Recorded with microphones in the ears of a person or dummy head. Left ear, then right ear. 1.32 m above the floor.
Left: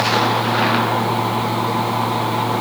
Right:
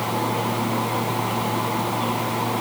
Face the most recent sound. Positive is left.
No sound to turn to.